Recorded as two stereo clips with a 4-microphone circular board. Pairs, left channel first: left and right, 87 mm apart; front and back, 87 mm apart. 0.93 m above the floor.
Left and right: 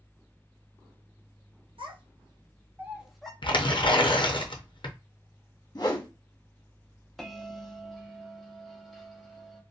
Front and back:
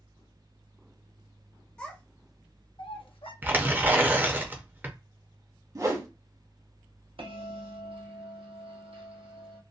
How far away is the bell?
About 0.7 m.